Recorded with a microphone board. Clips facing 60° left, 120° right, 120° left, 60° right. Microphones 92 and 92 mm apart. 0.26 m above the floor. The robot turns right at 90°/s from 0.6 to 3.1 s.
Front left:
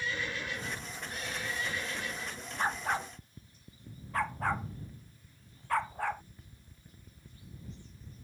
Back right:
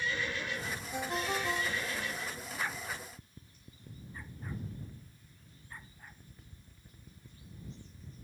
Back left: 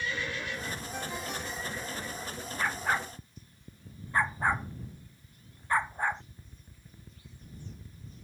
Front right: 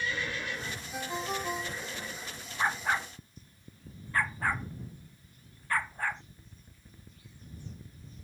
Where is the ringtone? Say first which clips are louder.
Back right 6 dB, front right 6 dB; 150° right; by 2.1 s 40° right.